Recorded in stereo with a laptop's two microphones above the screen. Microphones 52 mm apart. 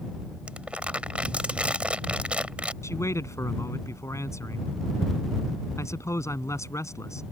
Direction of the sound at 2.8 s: 80° left.